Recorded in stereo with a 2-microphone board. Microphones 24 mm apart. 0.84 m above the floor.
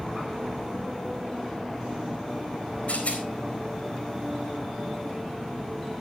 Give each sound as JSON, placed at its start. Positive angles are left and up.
{"t": 2.9, "sound": "a rattle", "side_deg": 65, "distance_m": 4.0}